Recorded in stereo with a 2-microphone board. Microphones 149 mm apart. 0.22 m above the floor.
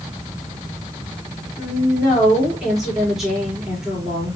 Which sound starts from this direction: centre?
A woman speaking, at 1.6 s.